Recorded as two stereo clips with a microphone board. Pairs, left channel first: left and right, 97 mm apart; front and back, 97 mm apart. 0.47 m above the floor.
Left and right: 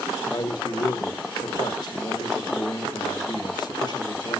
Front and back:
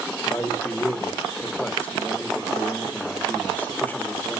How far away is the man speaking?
About 1.1 m.